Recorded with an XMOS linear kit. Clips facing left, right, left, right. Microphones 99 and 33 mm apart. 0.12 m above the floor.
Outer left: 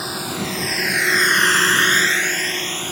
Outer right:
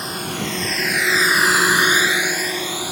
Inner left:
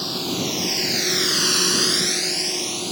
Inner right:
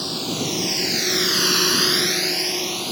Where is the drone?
5° left (ahead or behind); by 2.9 s 10° right (ahead or behind).